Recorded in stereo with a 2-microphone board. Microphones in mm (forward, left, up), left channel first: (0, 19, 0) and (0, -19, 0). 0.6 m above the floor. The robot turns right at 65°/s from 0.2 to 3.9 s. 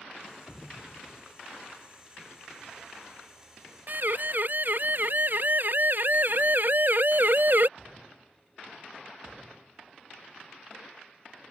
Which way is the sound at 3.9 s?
50° right (ahead or behind).